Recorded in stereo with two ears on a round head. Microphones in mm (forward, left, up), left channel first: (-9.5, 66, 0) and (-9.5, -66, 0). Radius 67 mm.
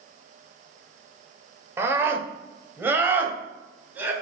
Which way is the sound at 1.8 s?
15° right (ahead or behind).